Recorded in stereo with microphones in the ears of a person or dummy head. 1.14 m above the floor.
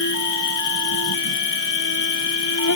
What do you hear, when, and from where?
0.0 s an insect: 80° left